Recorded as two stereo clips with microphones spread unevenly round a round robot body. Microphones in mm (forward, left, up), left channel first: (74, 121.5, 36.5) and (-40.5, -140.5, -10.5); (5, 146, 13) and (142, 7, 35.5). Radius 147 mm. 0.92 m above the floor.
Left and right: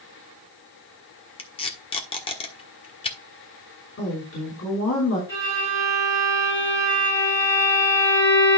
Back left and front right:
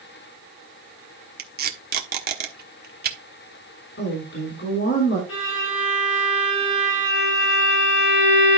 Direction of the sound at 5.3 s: 150° left.